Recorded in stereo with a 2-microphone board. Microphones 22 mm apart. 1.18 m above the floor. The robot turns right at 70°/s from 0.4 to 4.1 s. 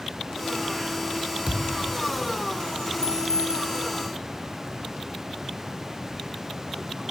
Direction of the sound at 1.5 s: 25° right (ahead or behind).